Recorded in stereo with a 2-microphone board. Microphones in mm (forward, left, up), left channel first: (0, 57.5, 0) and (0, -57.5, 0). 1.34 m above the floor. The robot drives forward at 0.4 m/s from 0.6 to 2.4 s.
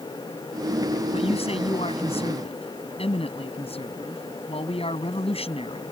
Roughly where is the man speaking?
Left.